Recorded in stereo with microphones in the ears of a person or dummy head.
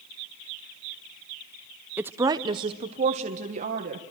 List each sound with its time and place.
2.0 s a woman speaking: 10° right (ahead or behind), 0.7 m; by 4.0 s 50° right (ahead or behind), 1.6 m